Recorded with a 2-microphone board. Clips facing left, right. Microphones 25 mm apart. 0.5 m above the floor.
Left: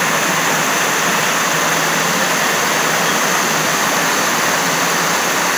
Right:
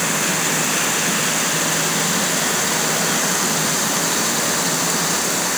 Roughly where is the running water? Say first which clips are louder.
Left 5 dB; left.